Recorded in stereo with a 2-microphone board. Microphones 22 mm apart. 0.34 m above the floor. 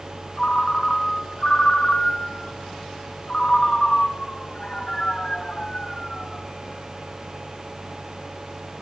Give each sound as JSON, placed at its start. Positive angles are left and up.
{"t": 0.4, "sound": "a ringtone", "side_deg": 40, "distance_m": 3.0}